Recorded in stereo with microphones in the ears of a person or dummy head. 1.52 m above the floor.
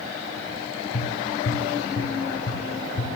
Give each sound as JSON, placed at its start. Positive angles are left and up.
{"t": 0.9, "sound": "tapping", "side_deg": 45, "distance_m": 2.5}